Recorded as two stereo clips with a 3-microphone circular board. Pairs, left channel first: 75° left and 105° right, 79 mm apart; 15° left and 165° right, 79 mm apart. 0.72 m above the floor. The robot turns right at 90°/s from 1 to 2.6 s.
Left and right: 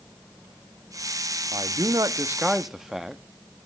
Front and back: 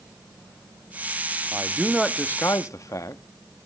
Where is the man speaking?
115° right, 0.7 m; by 3.2 s 20° right, 0.7 m.